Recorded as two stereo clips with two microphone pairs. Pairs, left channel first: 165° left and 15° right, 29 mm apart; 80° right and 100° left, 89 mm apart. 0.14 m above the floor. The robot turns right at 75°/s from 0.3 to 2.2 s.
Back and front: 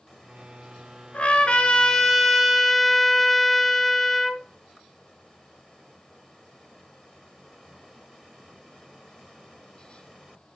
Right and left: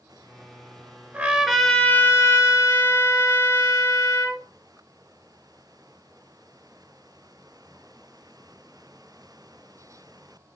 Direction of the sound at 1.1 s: 160° left.